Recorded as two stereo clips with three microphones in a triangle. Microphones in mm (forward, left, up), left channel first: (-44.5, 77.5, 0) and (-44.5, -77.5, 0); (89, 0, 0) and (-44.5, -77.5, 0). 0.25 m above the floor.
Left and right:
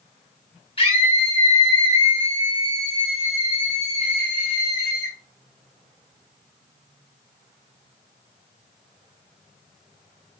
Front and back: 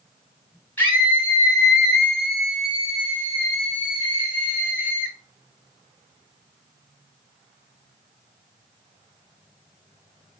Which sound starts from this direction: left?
A scream, at 0.8 s.